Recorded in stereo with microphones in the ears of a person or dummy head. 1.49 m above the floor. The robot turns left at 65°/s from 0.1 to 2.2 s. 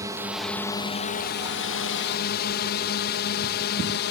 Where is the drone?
15° right (ahead or behind); by 4.1 s 55° left (ahead or behind).